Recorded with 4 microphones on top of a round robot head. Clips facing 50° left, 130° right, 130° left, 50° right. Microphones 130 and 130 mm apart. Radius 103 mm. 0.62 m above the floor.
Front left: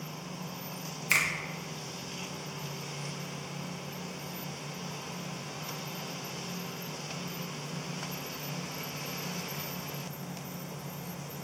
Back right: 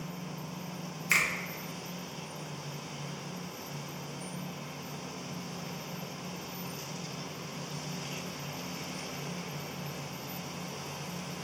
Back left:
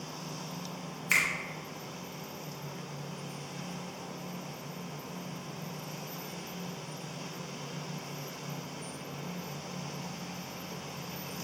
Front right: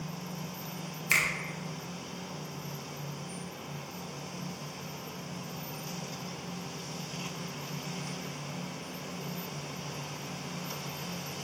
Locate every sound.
1.1 s a finger snap: straight ahead, 0.7 m